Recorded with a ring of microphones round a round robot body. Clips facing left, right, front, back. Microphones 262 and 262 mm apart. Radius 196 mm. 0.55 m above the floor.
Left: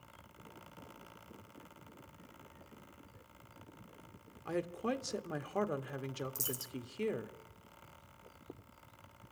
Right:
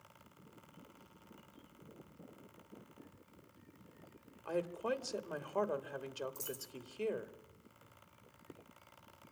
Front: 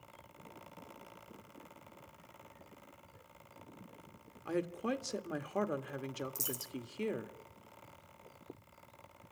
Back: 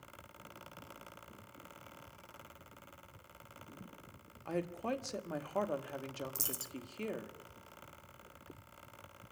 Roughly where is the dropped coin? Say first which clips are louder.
Left 2 dB, front 3 dB; left.